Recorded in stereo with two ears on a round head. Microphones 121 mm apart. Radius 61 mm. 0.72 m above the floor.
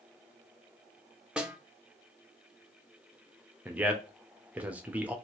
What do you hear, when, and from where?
1.4 s a snare drum: 5° right (ahead or behind), 0.5 m
3.6 s a man speaking: 10° right (ahead or behind), 0.6 m